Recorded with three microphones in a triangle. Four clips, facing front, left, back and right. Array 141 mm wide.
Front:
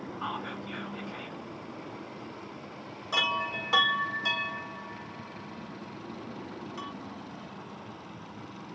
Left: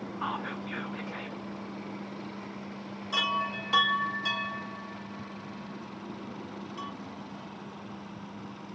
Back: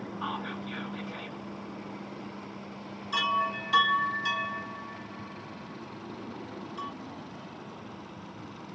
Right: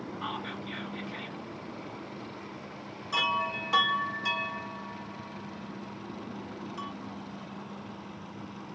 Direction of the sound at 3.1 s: 5° right.